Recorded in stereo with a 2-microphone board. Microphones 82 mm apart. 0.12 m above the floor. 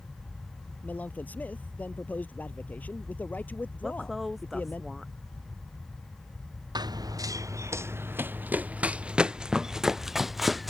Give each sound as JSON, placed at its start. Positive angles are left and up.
{"t": 0.8, "sound": "a man speaking", "side_deg": 20}
{"t": 3.8, "sound": "a woman speaking", "side_deg": 0}
{"t": 6.8, "sound": "running footsteps", "side_deg": -60}